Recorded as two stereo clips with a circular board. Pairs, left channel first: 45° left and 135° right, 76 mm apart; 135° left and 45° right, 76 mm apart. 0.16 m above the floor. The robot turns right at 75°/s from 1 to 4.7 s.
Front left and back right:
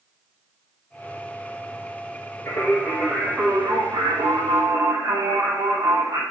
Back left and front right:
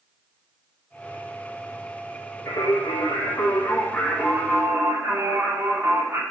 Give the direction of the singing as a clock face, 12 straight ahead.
9 o'clock.